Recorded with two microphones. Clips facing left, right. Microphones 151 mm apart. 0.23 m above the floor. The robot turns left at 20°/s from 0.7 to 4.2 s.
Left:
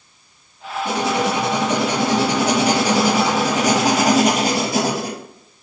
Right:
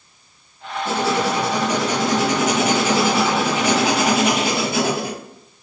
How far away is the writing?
About 0.6 m.